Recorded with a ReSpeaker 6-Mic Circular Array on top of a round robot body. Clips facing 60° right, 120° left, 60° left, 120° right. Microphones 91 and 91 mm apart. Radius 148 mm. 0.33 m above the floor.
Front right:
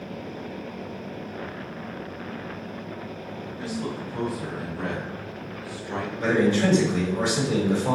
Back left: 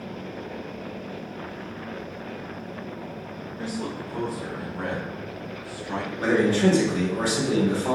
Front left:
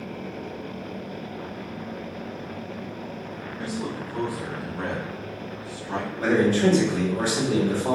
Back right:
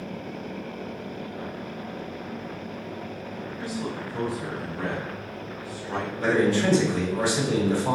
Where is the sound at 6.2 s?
80° left, 2 m.